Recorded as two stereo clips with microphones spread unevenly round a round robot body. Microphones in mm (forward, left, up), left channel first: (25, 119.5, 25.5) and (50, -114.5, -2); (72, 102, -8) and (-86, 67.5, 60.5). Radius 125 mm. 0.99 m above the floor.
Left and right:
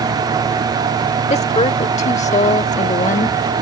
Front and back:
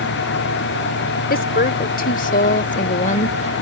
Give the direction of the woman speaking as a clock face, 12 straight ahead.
11 o'clock.